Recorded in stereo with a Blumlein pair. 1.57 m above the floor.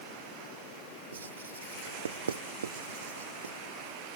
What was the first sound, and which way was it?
Writing, 70° right.